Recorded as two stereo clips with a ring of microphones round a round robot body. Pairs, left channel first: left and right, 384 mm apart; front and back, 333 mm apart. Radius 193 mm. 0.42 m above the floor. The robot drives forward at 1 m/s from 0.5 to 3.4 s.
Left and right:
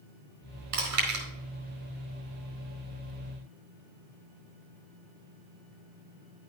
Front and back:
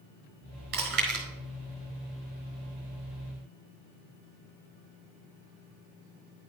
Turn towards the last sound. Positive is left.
turn(degrees=-145)